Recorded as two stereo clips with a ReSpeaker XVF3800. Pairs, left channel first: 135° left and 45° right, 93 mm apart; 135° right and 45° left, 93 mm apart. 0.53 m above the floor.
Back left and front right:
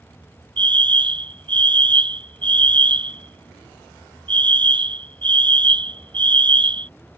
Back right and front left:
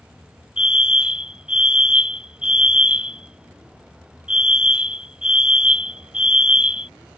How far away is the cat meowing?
I don't hear a cat meowing.